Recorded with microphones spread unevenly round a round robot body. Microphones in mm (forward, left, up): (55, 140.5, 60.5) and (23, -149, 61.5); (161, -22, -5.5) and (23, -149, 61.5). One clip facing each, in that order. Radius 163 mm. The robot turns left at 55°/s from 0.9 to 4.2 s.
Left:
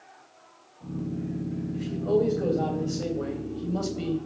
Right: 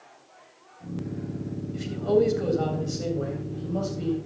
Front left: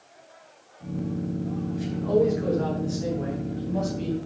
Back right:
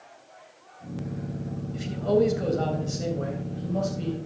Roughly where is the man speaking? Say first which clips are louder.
Right 2 dB, even; behind right.